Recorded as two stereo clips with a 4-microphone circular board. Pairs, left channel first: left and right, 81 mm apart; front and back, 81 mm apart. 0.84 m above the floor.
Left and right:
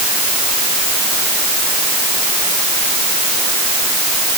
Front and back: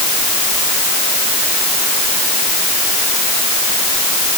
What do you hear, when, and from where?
Only background noise.